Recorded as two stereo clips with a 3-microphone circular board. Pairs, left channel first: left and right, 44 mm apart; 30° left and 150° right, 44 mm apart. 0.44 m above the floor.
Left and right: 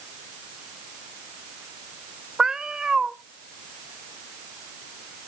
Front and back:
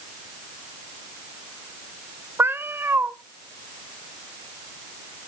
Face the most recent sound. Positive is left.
turn(degrees=-165)